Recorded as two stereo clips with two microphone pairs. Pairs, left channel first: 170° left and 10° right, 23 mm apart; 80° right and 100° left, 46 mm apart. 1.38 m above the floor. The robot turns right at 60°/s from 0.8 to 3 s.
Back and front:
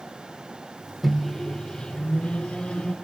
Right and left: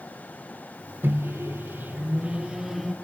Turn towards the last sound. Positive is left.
turn(degrees=-160)